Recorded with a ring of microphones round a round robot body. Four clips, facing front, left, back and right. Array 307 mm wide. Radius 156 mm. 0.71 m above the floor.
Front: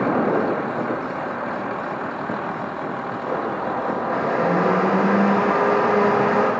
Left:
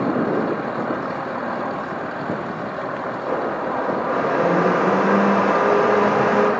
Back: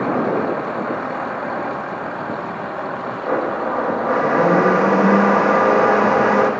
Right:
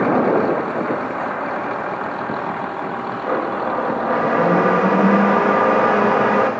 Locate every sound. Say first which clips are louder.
3.3 s a blender: right 3 dB, back 5 dB; 140° right, 1.0 m